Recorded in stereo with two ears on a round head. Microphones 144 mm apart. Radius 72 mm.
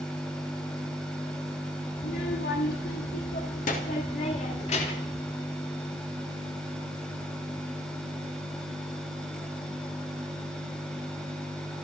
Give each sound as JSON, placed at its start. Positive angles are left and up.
{"t": 2.0, "sound": "a child speaking", "side_deg": 70, "distance_m": 3.0}